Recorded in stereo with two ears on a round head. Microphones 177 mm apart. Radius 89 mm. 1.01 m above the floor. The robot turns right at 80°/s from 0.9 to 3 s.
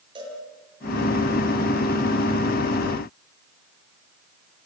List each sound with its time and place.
0.1 s a cowbell: 25° right (ahead or behind), 9 m